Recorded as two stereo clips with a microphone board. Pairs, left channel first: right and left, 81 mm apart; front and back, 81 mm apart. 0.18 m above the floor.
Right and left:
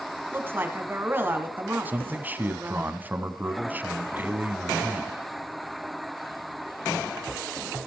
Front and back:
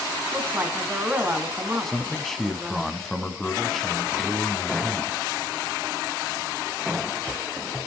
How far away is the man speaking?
About 1.0 m.